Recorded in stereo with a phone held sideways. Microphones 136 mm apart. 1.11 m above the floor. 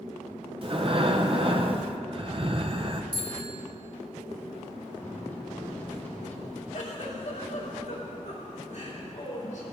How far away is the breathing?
About 0.9 m.